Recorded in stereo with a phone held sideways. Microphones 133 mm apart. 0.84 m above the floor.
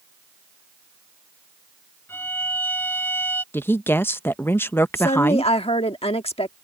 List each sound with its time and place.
2.1 s a violin: 15° left (ahead or behind)
3.5 s a woman speaking: 15° left (ahead or behind)
5.0 s a woman speaking: 50° left (ahead or behind)